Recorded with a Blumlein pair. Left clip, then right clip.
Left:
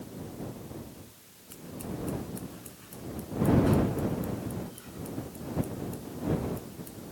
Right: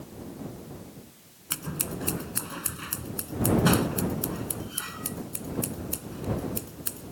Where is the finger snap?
I don't hear a finger snap.